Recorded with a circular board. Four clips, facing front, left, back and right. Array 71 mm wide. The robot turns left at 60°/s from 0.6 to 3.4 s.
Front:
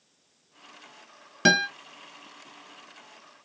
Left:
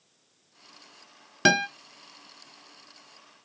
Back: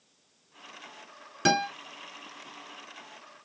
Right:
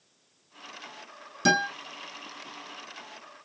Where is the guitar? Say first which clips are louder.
Left 1 dB, front 3 dB; 65° left, 1.0 m; by 1.7 s 55° left, 1.0 m.